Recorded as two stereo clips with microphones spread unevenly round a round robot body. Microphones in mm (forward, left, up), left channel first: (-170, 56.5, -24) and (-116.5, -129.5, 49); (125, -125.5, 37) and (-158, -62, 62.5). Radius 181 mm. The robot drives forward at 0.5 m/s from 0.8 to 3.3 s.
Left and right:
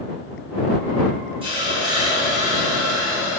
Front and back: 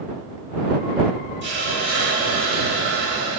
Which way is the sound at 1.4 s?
150° right.